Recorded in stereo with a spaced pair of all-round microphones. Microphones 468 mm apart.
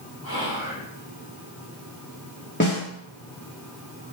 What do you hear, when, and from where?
0.2 s whispering: 45° left (ahead or behind), 2.5 m
2.6 s a snare drum: 25° left (ahead or behind), 1.7 m